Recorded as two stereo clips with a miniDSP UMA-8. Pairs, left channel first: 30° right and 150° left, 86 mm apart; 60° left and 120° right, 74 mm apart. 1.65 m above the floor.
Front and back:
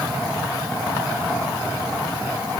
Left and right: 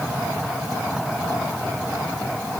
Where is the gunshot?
No gunshot in this recording.